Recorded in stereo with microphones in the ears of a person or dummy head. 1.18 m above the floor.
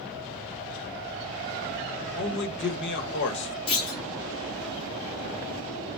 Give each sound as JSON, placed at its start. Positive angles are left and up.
{"t": 2.1, "sound": "a man speaking", "side_deg": 60, "distance_m": 1.0}
{"t": 3.7, "sound": "a clunk", "side_deg": 25, "distance_m": 1.6}